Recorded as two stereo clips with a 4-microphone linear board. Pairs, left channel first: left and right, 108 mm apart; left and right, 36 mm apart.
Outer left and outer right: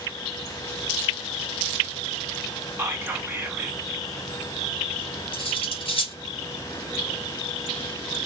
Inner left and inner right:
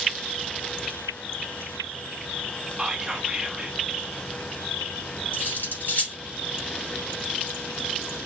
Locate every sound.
2.8 s whispering: 20° right (ahead or behind), 1.1 m
5.3 s cutlery clinking: 55° left (ahead or behind), 1.5 m